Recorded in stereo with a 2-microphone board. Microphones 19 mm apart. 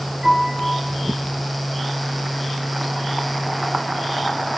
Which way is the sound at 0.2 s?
35° right (ahead or behind).